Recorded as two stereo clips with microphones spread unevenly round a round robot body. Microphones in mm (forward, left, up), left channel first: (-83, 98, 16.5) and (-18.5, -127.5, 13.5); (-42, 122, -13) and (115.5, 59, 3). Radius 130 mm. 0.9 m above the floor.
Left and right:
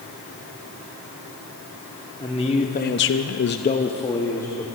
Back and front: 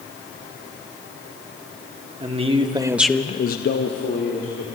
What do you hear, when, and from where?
2.2 s a man speaking: 35° left, 1.7 m; by 4.7 s 175° right, 2 m